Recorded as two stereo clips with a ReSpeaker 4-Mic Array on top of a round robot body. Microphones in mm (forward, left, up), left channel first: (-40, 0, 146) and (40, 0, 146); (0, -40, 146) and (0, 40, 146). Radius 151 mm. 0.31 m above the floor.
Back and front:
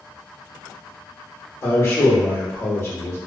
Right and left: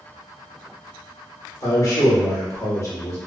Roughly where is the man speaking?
Behind right.